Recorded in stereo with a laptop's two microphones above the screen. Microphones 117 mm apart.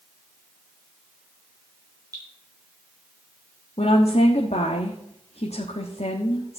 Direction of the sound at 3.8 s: 65° left (ahead or behind).